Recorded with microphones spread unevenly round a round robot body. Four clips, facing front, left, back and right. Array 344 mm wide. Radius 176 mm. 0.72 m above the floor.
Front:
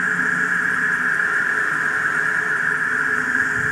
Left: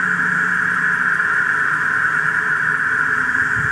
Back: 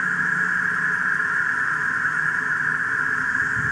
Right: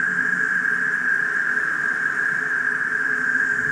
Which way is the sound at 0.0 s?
90° left.